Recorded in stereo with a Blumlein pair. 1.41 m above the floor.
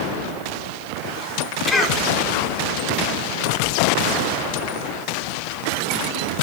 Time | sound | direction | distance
1.7 | a cough | 10° left | 4 m